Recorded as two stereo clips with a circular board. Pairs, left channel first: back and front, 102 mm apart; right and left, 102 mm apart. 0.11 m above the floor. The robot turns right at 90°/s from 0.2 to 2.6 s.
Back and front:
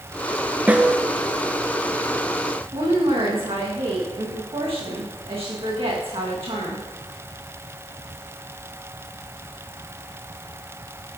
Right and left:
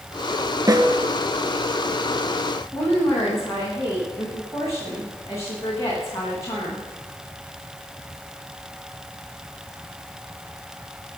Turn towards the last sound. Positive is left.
turn(degrees=-25)